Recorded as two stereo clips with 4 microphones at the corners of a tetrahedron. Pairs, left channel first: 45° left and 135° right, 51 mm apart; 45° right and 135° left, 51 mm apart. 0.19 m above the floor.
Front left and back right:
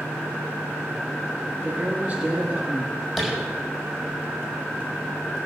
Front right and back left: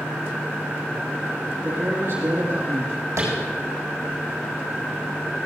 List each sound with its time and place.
1.6 s a man speaking: 165° left, 6 m
3.2 s tapping: 135° left, 5.5 m